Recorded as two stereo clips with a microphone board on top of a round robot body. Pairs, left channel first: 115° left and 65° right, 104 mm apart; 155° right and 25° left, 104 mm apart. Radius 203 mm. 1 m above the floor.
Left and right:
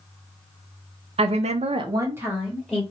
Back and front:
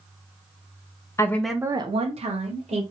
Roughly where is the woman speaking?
Right.